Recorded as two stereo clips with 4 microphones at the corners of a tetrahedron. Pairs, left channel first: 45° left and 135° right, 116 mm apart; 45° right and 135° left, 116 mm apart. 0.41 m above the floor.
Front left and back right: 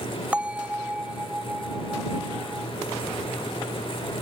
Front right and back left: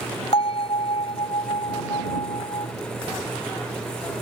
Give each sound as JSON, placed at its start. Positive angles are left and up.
{"t": 0.3, "sound": "a bell", "azimuth_deg": -55}